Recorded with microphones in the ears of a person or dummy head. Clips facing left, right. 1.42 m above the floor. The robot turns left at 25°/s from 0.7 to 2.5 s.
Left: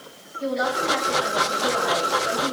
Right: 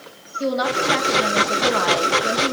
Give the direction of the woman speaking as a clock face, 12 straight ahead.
2 o'clock.